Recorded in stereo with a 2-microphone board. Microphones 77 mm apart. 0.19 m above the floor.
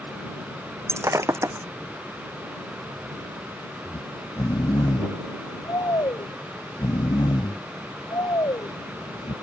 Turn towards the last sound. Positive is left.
turn(degrees=65)  # may be behind; listen again after turning